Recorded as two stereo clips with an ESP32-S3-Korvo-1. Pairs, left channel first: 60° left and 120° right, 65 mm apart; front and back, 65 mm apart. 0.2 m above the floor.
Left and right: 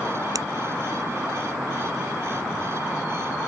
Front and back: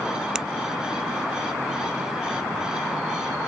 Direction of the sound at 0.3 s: 100° right.